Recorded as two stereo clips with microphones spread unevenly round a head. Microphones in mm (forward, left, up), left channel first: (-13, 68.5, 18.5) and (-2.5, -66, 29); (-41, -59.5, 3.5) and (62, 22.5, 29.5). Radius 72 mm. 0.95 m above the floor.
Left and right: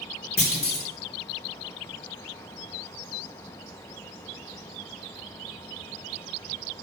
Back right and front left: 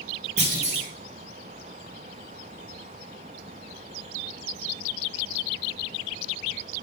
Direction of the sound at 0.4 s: 85° left.